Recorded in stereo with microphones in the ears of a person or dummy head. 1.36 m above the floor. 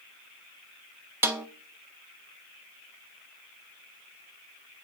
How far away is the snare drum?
About 0.6 m.